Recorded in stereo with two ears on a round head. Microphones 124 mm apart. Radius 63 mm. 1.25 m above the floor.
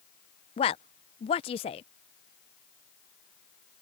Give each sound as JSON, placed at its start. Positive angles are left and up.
{"t": 0.6, "sound": "a woman speaking", "side_deg": 40}